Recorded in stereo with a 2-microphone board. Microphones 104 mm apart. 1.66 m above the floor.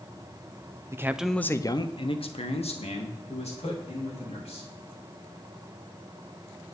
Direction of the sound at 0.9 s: 25° right (ahead or behind).